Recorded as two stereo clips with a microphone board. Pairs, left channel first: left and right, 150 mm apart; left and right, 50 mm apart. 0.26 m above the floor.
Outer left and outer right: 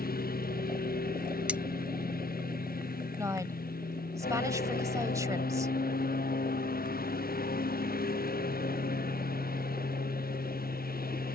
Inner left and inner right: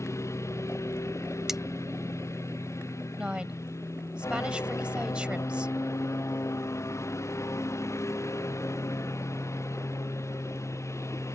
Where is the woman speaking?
20° right (ahead or behind).